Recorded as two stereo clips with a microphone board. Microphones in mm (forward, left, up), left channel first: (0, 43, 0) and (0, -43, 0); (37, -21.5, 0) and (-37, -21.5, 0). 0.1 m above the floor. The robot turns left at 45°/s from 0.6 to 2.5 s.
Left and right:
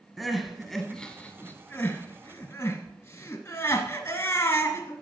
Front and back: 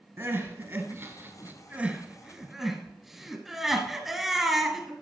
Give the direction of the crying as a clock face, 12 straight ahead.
6 o'clock.